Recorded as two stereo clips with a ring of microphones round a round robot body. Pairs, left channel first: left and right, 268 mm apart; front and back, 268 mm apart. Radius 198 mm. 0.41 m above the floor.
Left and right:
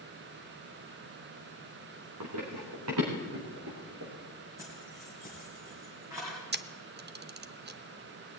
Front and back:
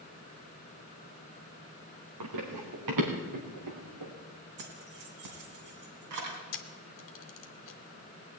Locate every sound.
2.2 s running footsteps: 145° right, 2.5 m
4.6 s keys jangling: 170° right, 3 m
6.5 s a camera shutter: 35° right, 0.7 m